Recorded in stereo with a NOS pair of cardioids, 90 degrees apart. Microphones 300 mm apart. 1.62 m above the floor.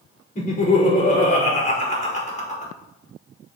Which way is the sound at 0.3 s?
25° left.